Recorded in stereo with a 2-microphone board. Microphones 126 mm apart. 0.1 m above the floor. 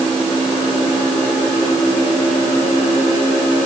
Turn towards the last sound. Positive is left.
No sound to turn to.